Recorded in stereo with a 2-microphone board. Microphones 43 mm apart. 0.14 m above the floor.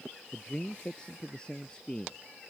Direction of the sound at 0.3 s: 20° left (ahead or behind).